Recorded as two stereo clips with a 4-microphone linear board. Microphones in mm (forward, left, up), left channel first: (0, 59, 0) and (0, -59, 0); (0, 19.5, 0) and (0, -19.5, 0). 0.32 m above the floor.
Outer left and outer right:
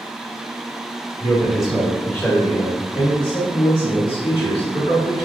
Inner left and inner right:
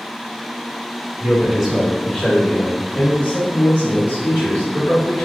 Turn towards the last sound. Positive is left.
turn(degrees=65)  # may be behind; listen again after turning